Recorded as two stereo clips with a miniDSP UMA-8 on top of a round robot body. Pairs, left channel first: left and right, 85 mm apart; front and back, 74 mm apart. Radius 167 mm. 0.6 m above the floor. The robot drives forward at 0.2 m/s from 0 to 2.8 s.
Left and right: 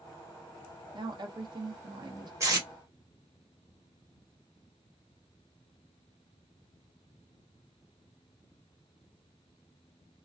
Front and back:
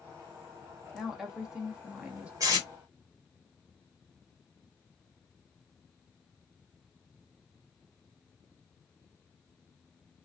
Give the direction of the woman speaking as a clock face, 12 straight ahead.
3 o'clock.